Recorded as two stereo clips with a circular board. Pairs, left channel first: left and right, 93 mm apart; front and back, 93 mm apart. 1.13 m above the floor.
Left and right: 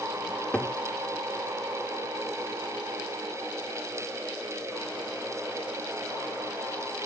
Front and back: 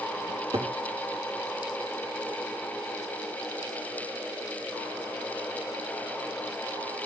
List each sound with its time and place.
0.3 s a cupboard door: 170° left, 1.4 m